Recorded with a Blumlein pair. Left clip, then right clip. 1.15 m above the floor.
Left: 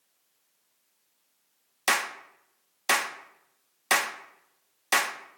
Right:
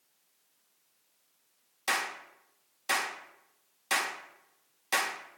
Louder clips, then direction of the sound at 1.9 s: Left 5 dB; 65° left.